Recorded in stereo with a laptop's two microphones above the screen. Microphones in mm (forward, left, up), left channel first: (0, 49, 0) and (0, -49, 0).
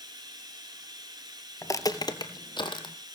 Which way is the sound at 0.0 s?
45° right (ahead or behind).